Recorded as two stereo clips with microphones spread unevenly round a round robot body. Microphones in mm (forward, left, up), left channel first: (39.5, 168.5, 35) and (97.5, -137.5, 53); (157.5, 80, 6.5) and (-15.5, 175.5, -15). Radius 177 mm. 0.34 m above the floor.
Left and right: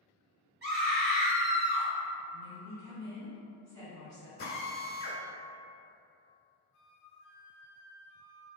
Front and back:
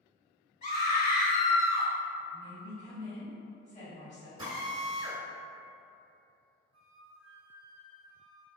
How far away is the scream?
About 1.7 m.